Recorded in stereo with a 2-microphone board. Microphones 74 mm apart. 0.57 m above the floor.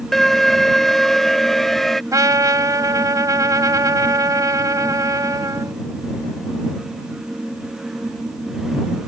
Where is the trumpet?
50° right (ahead or behind).